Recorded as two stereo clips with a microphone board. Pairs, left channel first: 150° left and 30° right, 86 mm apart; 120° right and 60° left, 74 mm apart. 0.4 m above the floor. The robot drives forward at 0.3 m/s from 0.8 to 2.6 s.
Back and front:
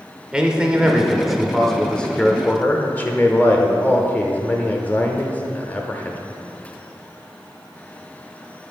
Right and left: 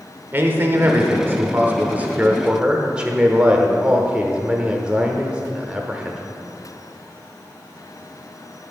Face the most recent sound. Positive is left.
turn(degrees=120)